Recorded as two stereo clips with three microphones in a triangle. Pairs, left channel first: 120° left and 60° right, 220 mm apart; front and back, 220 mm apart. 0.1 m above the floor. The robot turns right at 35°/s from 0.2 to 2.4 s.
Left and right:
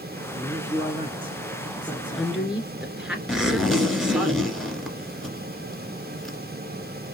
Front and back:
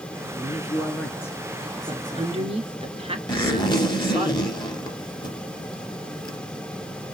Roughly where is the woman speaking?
Behind.